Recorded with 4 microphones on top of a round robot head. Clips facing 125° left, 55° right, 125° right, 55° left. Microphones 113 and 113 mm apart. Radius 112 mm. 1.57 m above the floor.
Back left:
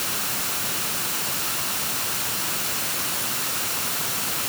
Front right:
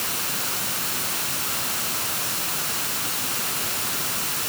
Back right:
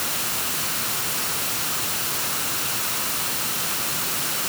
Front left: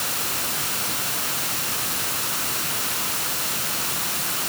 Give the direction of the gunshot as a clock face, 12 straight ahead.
No gunshot in this recording.